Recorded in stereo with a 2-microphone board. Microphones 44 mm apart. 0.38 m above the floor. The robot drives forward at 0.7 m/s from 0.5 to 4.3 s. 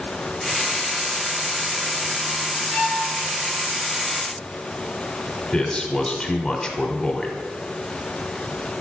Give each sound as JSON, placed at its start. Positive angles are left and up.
{"t": 2.7, "sound": "a violin", "side_deg": 50, "distance_m": 1.8}
{"t": 5.5, "sound": "a man speaking", "side_deg": 20, "distance_m": 0.9}